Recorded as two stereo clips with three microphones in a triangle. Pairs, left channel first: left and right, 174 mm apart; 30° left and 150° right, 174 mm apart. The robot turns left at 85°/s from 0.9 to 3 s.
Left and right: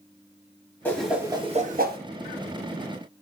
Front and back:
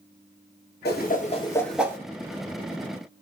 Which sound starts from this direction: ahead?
A whoosh, at 0.8 s.